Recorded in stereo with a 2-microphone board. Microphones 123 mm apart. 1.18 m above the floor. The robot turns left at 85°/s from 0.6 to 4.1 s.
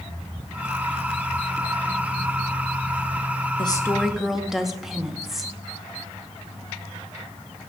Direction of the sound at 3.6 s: 40° left.